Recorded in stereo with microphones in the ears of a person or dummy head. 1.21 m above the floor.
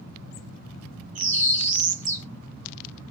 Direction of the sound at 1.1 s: 40° right (ahead or behind).